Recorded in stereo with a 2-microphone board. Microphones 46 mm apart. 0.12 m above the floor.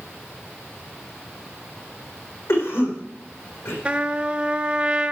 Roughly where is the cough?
Left.